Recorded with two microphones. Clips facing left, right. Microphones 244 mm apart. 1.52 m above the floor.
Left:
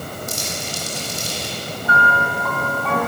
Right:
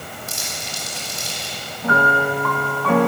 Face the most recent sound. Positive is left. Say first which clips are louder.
# right 5 dB
turn(degrees=-85)